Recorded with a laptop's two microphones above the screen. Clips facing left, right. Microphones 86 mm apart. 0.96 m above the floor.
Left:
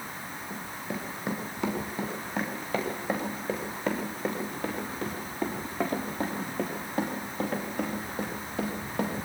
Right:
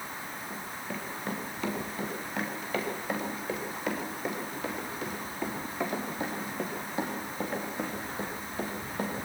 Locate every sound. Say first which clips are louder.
0.5 s running footsteps: left 3 dB; 15° left (ahead or behind), 8 m; by 9.2 s 65° left (ahead or behind), 7.5 m